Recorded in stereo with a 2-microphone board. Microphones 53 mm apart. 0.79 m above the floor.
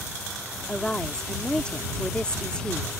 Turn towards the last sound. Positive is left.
turn(degrees=15)  # may be behind; listen again after turning